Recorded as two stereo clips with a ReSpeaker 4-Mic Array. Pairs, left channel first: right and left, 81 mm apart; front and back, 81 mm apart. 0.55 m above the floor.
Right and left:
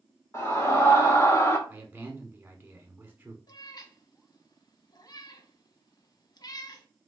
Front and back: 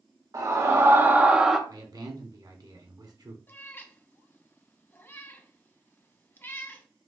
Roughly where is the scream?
Behind right.